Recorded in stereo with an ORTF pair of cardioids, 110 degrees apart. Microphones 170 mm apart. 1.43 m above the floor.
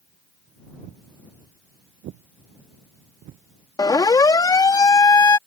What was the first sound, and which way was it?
Footsteps, 70° right.